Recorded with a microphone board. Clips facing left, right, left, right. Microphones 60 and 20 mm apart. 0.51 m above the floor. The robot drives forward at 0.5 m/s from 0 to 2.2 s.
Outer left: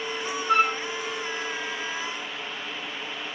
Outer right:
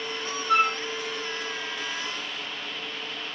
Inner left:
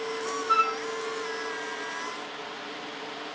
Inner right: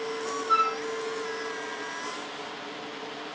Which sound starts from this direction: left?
A flute, at 0.5 s.